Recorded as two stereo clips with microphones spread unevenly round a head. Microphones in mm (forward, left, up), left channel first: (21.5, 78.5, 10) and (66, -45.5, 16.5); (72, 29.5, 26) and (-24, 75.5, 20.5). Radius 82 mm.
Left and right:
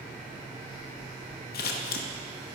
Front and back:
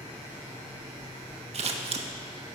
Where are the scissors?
130° left, 0.8 m.